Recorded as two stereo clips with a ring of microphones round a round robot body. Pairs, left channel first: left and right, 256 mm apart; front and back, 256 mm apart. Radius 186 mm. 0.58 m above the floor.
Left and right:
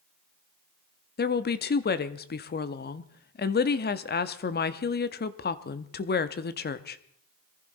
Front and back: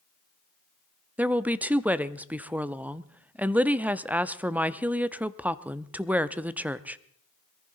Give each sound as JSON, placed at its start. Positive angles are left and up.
{"t": 1.2, "sound": "a woman speaking", "azimuth_deg": 100, "distance_m": 0.7}